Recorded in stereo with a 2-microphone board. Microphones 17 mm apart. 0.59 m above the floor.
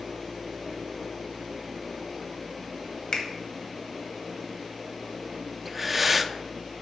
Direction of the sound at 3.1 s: 60° left (ahead or behind).